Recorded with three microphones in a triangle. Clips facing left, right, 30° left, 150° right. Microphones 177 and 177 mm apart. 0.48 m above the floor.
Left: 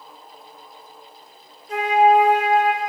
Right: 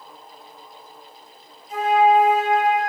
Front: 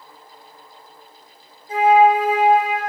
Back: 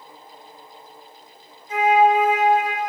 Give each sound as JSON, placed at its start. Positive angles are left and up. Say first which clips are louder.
{"t": 1.7, "sound": "a flute", "louder": "left 1 dB, front 3 dB", "azimuth_deg": 85, "distance_m": 2.0}